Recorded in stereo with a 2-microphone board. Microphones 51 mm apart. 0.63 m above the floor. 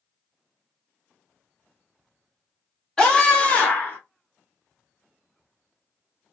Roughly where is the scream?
Centre.